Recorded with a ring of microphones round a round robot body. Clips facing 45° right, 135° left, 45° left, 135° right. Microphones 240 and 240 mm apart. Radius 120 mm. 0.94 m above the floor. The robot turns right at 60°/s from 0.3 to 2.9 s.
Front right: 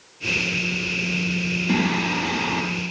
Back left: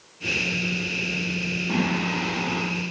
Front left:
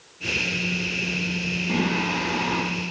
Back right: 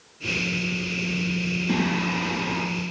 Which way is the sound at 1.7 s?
95° right.